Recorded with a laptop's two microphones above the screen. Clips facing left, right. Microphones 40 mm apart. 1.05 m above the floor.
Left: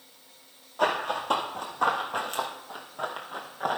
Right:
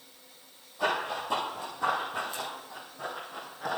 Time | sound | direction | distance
0.8 | running footsteps | 60° left (ahead or behind) | 2.5 m